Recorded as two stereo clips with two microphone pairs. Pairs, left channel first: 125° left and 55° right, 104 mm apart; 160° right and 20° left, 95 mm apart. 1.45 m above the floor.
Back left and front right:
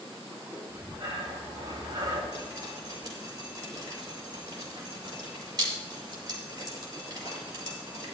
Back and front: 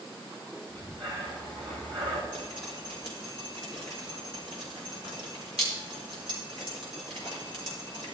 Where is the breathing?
5° right, 4 m.